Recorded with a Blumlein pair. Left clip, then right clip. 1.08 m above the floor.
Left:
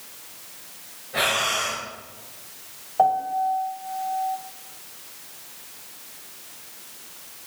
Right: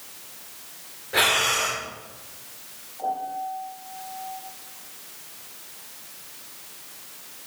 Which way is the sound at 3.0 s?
40° left.